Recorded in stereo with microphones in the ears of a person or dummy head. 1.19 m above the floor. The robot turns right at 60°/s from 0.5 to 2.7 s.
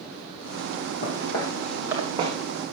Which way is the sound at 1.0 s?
40° left (ahead or behind).